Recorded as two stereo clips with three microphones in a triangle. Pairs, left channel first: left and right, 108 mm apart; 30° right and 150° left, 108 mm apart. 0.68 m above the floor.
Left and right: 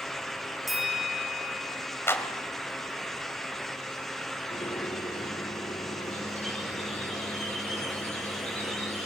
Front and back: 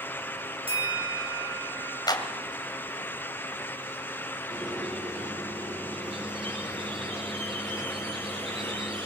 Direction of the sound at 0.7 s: Straight behind.